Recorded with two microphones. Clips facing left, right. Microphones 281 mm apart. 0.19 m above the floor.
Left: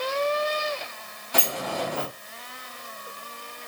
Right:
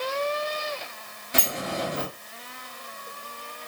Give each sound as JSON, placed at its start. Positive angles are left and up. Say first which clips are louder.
{"t": 1.3, "sound": "a sliding door", "louder": "left 1 dB", "side_deg": -25, "distance_m": 1.5}